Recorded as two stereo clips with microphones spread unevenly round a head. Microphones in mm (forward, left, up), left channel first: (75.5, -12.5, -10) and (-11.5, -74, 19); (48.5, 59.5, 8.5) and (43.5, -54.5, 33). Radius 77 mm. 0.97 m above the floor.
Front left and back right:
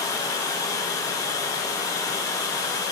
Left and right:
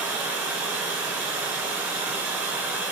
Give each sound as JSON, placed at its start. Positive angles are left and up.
{"t": 0.0, "sound": "running water", "azimuth_deg": -25, "distance_m": 1.0}